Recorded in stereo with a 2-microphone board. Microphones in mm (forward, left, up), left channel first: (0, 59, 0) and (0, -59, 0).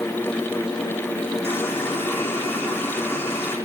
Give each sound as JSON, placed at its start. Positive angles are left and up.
{"t": 1.4, "sound": "a running tap", "side_deg": 20, "distance_m": 5.5}